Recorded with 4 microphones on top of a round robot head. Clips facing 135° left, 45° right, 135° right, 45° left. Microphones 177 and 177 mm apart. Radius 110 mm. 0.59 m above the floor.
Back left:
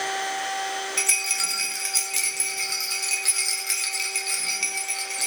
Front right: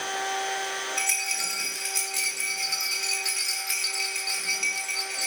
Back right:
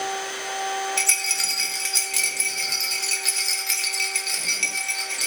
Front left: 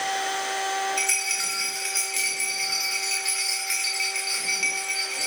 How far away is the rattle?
About 1.5 m.